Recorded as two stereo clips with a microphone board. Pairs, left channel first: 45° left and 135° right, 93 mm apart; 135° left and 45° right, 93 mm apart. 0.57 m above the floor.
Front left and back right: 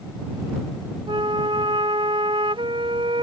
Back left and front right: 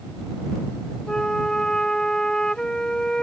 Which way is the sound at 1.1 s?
145° right.